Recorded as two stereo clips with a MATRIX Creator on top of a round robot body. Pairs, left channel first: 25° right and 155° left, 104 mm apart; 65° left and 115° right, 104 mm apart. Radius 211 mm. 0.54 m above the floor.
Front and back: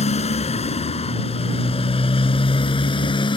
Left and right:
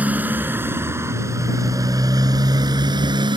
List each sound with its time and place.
0.0 s a motorcycle: 35° right; by 3.4 s 65° right